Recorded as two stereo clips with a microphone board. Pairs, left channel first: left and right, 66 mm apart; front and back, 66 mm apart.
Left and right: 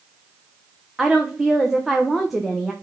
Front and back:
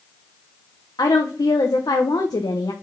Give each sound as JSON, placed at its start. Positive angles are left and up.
{"t": 1.0, "sound": "a woman speaking", "azimuth_deg": 0, "distance_m": 0.9}